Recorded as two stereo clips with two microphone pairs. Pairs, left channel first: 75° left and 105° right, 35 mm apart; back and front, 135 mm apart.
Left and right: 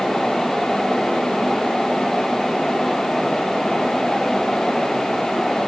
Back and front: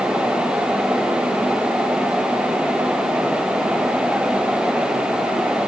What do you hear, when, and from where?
Only background noise.